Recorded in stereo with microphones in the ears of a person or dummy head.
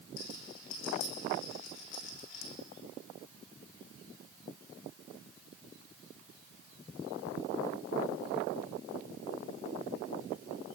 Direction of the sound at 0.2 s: 75° left (ahead or behind).